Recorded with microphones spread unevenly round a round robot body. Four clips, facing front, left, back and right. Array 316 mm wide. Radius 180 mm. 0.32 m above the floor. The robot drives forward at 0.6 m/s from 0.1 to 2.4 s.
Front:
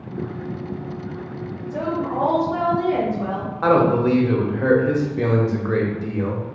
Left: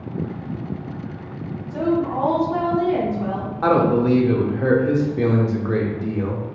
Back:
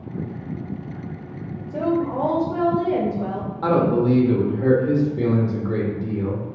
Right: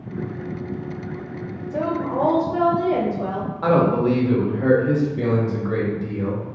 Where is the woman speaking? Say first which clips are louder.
Left 3 dB, back 2 dB; 100° right, 1.2 m; by 3.5 s 135° right, 1.4 m.